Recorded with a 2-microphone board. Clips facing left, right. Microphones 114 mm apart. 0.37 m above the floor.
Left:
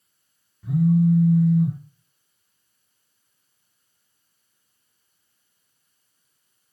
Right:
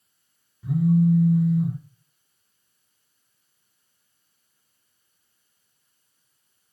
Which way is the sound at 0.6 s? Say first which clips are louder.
Left 1 dB; 5° right (ahead or behind).